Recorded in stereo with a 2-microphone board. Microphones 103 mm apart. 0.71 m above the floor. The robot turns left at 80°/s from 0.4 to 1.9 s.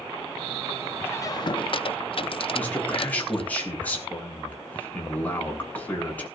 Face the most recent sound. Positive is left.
turn(degrees=15)  # may be behind; listen again after turning